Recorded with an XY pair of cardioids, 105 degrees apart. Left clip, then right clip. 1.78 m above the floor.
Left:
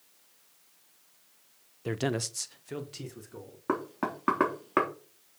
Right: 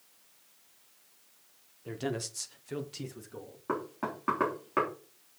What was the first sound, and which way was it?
A man speaking, 70° left.